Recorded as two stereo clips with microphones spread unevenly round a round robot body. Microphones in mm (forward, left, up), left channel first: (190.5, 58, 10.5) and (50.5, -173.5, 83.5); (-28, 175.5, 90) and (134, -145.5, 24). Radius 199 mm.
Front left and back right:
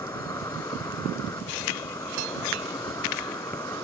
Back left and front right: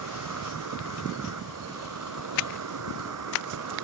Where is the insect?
20° right.